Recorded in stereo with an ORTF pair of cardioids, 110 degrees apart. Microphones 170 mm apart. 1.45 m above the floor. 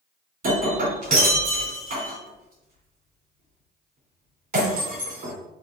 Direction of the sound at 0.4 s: 55° right.